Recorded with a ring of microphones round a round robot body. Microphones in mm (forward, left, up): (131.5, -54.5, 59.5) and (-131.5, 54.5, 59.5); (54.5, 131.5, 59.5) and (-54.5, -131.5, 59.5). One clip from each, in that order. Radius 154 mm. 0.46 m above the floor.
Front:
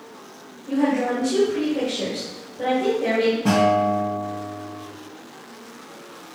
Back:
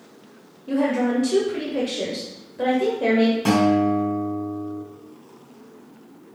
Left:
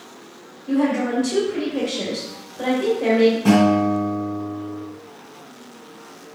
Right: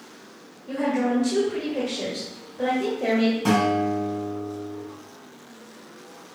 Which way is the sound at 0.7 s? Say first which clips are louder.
Even, left 3 dB; 160° left.